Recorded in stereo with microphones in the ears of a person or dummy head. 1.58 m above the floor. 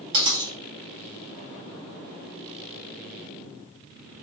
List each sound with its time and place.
0.1 s a dropped coin: 40° right (ahead or behind), 1.9 m